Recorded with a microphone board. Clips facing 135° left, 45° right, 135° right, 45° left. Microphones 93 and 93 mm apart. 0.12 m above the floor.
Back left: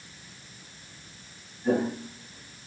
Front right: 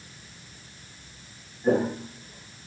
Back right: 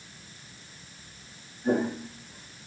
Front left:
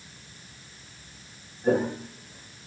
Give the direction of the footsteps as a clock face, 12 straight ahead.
12 o'clock.